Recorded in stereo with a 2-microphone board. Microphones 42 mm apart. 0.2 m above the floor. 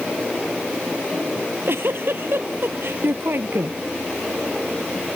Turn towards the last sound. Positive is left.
turn(degrees=-60)  # may be behind; listen again after turning